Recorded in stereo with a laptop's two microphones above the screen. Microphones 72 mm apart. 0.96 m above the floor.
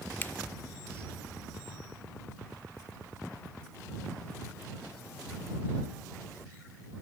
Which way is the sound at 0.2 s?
30° left (ahead or behind).